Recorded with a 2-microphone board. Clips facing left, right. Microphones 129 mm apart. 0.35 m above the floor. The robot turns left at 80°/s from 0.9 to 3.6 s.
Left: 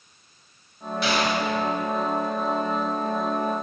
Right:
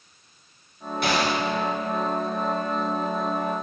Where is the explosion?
125° right, 0.8 m; by 1.4 s 160° right, 0.8 m.